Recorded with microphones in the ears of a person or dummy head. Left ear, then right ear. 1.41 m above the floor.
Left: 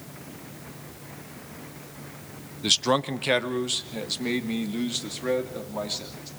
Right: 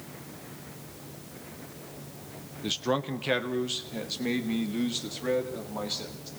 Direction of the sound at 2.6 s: 30° left (ahead or behind).